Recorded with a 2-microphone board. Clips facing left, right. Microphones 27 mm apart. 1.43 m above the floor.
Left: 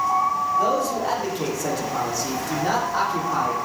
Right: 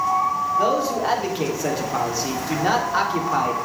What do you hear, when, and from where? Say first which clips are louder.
0.6 s a man speaking: right 1 dB; 25° right (ahead or behind), 3 m